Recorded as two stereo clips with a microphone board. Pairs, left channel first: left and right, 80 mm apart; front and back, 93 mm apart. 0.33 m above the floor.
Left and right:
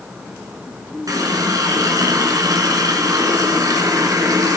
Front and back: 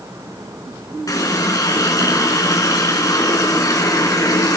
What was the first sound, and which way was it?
A running tap, 50° right.